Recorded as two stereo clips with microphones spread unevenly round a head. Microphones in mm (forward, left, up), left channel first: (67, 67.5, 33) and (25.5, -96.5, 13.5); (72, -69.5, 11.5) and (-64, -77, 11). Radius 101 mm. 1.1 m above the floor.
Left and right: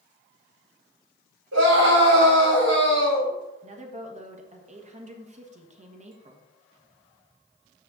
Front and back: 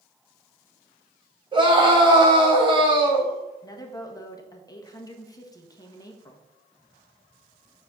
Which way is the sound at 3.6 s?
60° right.